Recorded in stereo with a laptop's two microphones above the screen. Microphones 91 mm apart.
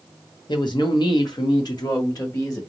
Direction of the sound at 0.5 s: 55° left (ahead or behind).